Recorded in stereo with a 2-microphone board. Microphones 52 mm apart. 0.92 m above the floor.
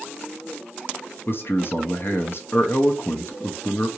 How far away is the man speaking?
About 0.8 m.